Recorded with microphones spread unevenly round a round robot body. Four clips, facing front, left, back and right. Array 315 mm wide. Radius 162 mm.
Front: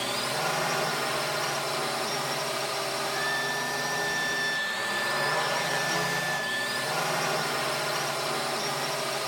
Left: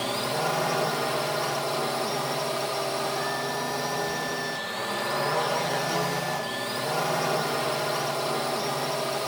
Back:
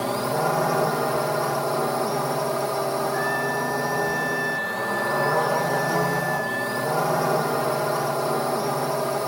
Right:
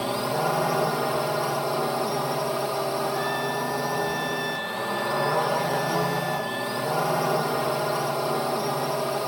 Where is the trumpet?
70° right.